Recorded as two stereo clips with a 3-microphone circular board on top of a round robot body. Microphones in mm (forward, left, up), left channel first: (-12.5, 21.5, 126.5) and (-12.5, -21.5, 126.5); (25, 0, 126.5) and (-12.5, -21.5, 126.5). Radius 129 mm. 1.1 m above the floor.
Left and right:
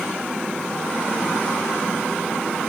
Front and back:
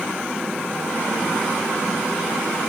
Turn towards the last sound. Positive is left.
No sound to turn to.